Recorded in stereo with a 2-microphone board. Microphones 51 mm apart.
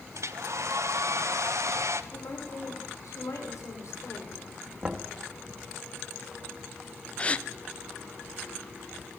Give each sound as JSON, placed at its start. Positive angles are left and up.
{"t": 0.1, "sound": "a hair dryer", "side_deg": -75, "distance_m": 1.2}
{"t": 2.1, "sound": "a woman speaking", "side_deg": 80, "distance_m": 7.0}
{"t": 4.8, "sound": "knocking", "side_deg": -25, "distance_m": 1.9}
{"t": 7.2, "sound": "a gasp", "side_deg": 25, "distance_m": 0.7}